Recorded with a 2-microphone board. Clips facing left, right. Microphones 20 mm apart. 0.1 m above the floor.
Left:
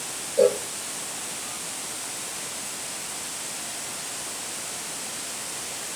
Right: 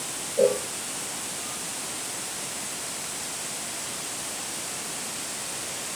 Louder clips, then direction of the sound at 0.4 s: Left 2 dB; 30° left (ahead or behind).